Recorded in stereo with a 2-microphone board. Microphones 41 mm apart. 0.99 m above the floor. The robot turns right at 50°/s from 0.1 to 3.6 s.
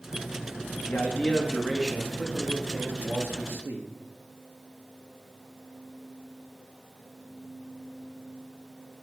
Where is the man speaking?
125° left, 1.4 m; by 3.9 s 95° right, 1.4 m.